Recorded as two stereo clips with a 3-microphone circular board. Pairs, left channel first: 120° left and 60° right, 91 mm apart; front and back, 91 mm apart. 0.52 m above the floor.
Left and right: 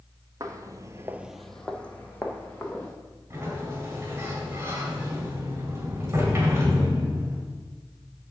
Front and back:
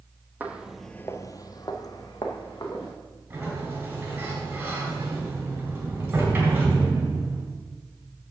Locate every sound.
0.4 s footsteps: 110° right, 1.0 m; by 2.9 s 50° left, 3 m
3.3 s a sliding door: 120° right, 3 m